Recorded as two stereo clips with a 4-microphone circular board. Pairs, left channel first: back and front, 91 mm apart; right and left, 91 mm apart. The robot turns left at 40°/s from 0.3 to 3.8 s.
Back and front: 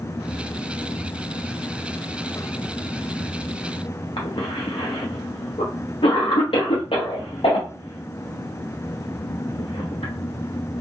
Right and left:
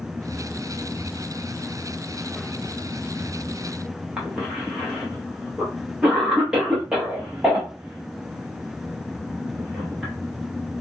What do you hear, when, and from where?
4.2 s a cough: 170° left, 0.7 m